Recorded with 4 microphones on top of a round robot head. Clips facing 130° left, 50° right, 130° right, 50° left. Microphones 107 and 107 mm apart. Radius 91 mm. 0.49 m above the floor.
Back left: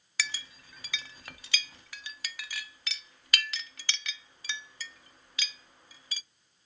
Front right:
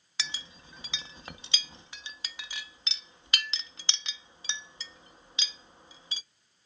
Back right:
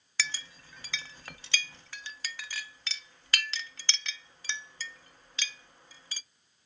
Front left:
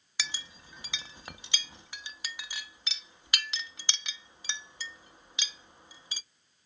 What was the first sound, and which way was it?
A clink, 5° right.